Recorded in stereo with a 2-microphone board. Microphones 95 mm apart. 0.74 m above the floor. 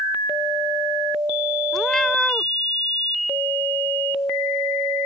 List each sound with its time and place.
1.7 s a cat meowing: 5° left (ahead or behind)